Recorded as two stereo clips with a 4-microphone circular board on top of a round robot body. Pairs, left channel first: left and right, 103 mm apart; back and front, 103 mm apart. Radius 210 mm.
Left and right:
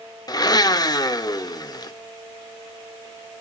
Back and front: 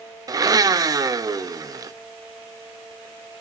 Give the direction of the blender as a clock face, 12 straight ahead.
10 o'clock.